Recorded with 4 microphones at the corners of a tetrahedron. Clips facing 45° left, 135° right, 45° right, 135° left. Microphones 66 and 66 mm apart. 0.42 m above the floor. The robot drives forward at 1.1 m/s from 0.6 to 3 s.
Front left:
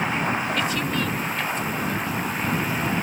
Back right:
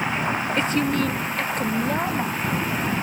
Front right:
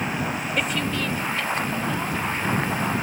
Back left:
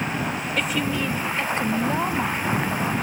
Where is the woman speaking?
125° right; by 2.6 s 175° right.